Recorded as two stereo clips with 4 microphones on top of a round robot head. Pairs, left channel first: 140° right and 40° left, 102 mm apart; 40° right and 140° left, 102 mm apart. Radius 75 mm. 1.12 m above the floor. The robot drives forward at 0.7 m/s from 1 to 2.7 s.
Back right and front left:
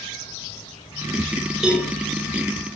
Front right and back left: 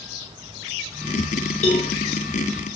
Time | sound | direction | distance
1.6 | a cowbell | 45° right | 6.5 m